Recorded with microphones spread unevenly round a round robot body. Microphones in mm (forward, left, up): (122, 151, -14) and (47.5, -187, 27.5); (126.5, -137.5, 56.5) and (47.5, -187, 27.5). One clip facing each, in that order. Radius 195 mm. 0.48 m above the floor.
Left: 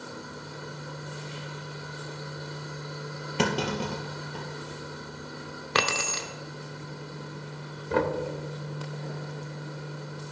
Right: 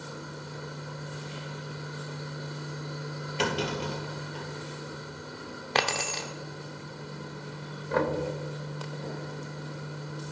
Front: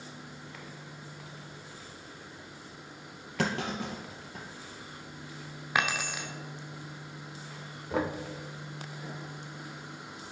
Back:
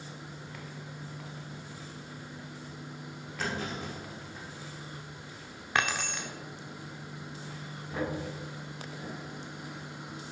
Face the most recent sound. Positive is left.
turn(degrees=40)